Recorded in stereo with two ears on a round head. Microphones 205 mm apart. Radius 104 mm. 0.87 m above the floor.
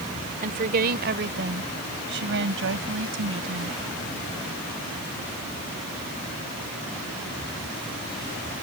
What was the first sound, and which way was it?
A woman speaking, 40° right (ahead or behind).